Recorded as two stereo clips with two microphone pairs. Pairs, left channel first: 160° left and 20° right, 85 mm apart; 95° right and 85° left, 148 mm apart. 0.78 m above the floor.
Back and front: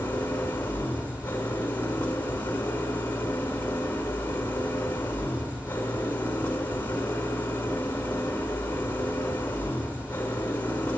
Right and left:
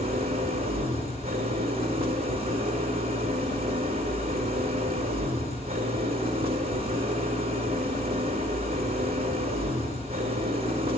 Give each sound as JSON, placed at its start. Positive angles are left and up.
{"t": 0.0, "sound": "an engine running", "azimuth_deg": 95, "distance_m": 1.7}